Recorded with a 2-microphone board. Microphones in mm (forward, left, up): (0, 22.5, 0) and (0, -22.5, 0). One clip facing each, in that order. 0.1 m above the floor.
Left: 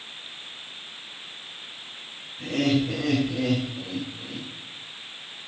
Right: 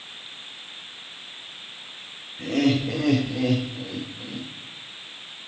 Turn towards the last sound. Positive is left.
turn(degrees=-40)  # may be behind; listen again after turning